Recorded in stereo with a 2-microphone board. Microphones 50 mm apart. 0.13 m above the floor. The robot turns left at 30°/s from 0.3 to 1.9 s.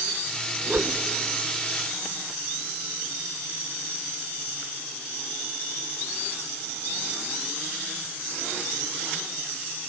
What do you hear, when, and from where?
0.7 s a whoosh: 30° right (ahead or behind), 0.8 m; by 1.0 s 35° right (ahead or behind), 0.8 m